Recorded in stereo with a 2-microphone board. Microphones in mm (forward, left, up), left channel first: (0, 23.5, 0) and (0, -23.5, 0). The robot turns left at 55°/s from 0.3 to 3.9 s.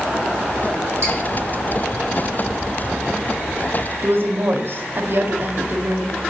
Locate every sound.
1.0 s dripping: 80° right, 2.5 m; by 1.2 s 85° right, 2.5 m
4.0 s a woman speaking: 50° right (ahead or behind), 0.5 m